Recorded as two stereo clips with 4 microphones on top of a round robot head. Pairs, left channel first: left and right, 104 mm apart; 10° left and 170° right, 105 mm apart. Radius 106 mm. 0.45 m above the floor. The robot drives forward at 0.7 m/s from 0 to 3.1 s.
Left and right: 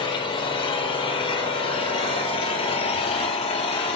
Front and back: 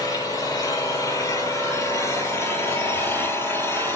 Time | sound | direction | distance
0.0 | an engine running | 60° left | 6 m